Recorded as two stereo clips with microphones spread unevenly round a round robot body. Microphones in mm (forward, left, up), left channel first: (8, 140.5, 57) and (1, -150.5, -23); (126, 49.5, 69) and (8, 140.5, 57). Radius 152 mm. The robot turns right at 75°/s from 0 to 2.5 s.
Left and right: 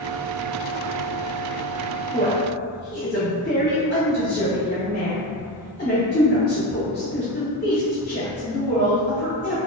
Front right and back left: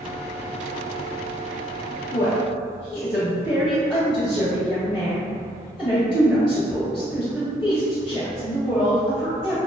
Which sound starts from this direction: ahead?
A woman speaking, at 2.1 s.